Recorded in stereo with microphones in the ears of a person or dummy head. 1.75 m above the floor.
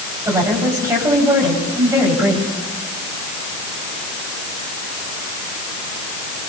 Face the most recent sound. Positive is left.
turn(degrees=-15)  # may be behind; listen again after turning